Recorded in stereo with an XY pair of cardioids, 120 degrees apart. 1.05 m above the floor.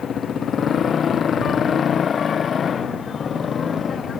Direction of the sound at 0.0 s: 45° left.